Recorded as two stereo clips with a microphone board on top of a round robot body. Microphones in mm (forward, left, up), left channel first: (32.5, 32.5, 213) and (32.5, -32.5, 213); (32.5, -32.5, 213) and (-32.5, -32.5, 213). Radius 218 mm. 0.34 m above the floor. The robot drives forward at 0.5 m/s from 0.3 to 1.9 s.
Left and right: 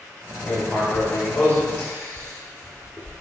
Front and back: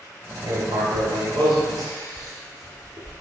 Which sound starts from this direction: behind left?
Writing, at 0.4 s.